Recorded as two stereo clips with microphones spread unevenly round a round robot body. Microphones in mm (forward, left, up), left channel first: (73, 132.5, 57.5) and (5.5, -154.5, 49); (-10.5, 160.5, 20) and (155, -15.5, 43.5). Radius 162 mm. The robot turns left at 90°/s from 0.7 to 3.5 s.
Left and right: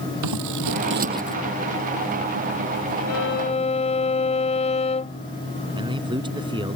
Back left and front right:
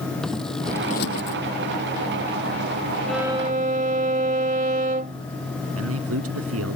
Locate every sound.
0.2 s scissors: 140° right; by 1.4 s 160° left
3.1 s a violin: 45° left; by 5.2 s 10° left
5.8 s a man speaking: 30° right